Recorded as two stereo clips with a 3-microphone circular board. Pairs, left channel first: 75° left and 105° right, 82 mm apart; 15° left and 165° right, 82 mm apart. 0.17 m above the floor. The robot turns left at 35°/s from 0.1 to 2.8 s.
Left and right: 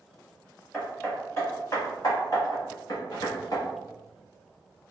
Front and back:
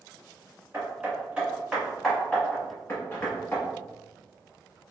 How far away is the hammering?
About 1.3 m.